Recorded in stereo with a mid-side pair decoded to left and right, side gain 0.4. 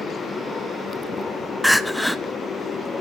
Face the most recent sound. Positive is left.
turn(degrees=10)